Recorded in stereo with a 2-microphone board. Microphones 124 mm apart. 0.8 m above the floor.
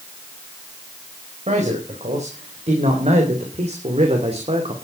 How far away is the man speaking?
About 5 m.